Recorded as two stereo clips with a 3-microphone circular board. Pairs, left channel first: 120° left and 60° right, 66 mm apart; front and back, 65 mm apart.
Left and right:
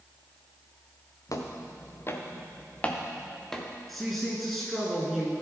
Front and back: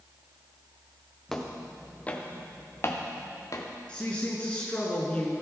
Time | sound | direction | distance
1.3 | footsteps | 85° left | 1.2 m
3.9 | a woman speaking | 35° left | 1.4 m